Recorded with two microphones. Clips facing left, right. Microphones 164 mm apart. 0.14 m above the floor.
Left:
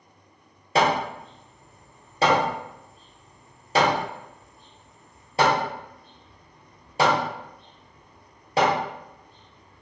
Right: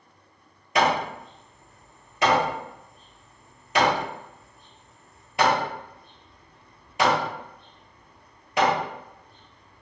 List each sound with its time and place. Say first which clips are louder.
0.8 s hammering: left 1 dB; 35° left (ahead or behind), 1.0 m